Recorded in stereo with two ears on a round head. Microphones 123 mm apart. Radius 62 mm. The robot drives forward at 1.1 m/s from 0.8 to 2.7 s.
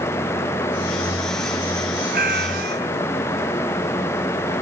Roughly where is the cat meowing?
Right.